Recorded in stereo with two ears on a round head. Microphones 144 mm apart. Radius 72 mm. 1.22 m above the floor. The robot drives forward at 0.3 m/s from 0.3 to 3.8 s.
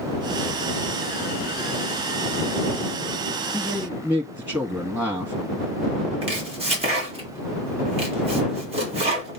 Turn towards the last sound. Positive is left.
turn(degrees=-40)  # may be behind; listen again after turning